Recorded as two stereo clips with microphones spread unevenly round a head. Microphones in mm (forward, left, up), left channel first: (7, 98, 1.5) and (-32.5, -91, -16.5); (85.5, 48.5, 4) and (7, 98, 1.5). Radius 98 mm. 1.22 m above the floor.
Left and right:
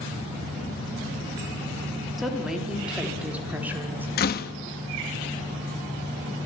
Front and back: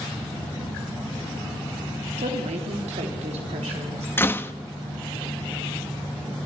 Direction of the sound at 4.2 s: 35° left.